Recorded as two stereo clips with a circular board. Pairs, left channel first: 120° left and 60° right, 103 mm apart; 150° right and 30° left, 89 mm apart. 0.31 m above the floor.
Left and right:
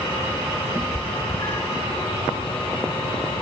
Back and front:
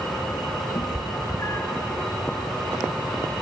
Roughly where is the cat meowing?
Behind right.